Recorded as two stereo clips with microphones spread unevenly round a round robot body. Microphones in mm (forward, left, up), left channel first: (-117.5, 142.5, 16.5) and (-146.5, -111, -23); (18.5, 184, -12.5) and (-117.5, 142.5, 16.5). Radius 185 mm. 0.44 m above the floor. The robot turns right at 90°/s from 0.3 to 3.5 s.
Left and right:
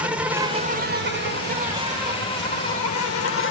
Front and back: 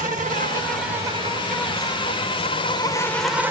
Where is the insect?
170° right, 1.9 m; by 3.5 s 115° left, 1.9 m.